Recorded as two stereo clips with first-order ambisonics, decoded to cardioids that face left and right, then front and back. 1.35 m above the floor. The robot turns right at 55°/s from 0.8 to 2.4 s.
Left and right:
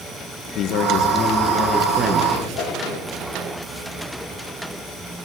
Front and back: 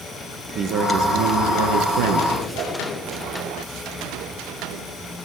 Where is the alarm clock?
No alarm clock in this recording.